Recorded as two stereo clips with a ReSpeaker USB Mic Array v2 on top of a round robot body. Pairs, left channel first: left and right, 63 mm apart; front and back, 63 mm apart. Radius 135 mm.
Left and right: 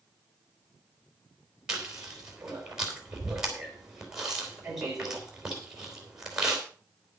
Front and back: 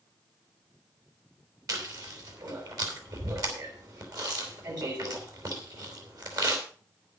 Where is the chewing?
170° right, 4 m.